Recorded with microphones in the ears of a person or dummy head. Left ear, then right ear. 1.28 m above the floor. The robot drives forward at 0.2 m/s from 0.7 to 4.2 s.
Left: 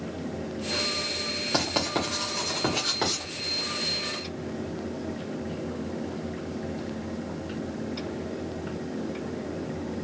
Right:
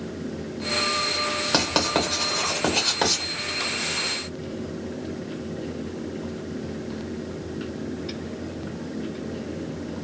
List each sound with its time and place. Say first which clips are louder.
1.5 s writing: right 5 dB; 10° right (ahead or behind), 0.8 m